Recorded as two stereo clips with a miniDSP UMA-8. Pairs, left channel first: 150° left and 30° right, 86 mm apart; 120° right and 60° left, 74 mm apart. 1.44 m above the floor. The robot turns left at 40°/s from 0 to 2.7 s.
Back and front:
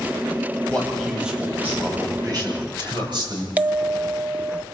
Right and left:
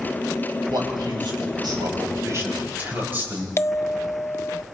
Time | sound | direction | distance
0.7 | a man speaking | 75° left | 6.5 m
3.6 | a bell | 90° right | 0.6 m